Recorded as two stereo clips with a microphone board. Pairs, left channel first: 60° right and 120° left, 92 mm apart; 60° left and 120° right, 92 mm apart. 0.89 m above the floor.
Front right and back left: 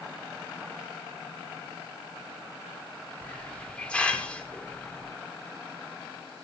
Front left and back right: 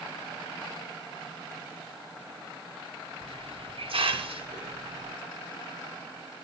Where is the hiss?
140° right, 1.5 m.